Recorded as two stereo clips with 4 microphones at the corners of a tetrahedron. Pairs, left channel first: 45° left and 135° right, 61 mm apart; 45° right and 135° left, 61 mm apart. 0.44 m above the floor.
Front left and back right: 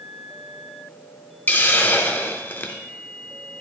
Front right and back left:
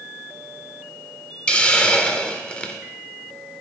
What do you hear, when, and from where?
1.5 s a hiss: 15° left, 0.7 m